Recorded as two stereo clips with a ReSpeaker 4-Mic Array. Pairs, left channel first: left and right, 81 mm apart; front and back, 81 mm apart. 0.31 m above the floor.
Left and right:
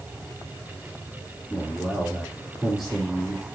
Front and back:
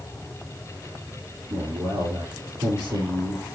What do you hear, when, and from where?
1.5 s a man speaking: straight behind, 5 m